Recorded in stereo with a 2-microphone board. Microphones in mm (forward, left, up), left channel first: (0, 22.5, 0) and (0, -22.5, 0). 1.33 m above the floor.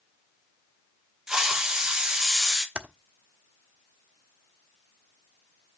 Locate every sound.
1.3 s a hiss: 15° right (ahead or behind), 1.3 m
2.8 s typing on a keyboard: 25° right (ahead or behind), 0.9 m